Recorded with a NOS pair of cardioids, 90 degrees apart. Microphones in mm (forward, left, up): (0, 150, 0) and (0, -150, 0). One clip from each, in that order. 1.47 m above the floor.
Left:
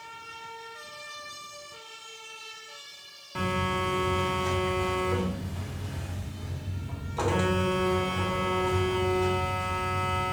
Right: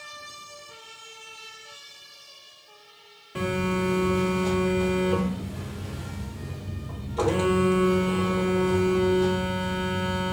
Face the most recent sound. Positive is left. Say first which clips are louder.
# right 1 dB
turn(degrees=5)